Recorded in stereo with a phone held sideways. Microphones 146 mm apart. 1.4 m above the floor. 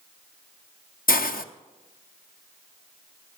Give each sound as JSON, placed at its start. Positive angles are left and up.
{"t": 1.1, "sound": "a hiss", "side_deg": 75, "distance_m": 0.7}